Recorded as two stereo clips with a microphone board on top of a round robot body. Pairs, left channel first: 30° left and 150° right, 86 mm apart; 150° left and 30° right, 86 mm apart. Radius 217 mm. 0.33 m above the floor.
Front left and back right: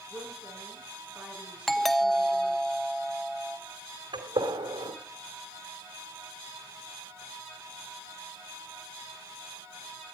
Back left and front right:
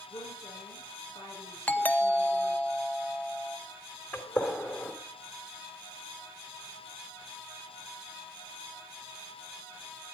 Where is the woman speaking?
135° left, 9 m.